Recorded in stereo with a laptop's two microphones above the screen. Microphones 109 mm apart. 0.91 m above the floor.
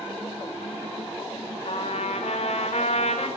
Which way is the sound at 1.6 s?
75° left (ahead or behind).